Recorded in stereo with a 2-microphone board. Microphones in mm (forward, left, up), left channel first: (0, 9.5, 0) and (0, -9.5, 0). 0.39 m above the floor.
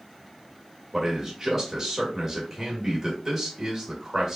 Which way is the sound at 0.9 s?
15° right (ahead or behind).